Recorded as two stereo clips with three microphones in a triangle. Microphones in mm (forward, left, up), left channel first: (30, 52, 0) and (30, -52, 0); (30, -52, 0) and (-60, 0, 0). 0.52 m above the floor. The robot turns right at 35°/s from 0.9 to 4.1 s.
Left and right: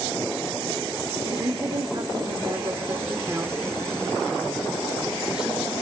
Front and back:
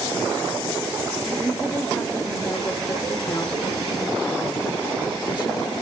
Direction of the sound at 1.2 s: 110° right.